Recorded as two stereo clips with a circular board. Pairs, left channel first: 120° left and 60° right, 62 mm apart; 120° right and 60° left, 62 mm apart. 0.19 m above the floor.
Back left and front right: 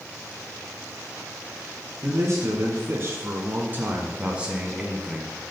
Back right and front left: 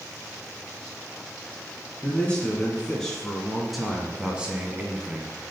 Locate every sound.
2.0 s a man speaking: 60° right, 1.8 m; by 5.4 s 25° left, 1.4 m